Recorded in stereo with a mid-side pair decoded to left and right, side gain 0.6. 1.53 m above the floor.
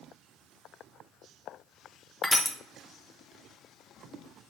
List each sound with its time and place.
2.2 s crushing: 10° left, 0.7 m